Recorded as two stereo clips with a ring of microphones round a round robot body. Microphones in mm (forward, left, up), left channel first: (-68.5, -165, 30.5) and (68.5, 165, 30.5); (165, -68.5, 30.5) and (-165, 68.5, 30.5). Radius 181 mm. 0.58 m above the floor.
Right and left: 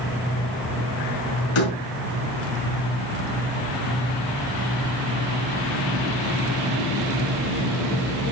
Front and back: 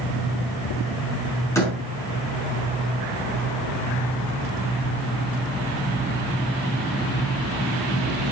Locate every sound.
1.6 s a door slam: 105° right, 5 m